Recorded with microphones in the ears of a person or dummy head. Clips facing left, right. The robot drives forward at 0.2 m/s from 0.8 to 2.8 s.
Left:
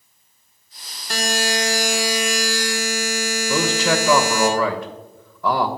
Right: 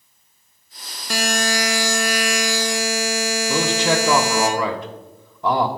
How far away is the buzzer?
About 0.9 m.